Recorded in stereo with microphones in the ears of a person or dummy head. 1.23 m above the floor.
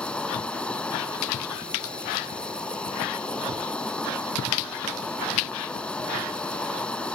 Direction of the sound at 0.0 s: 5° left (ahead or behind).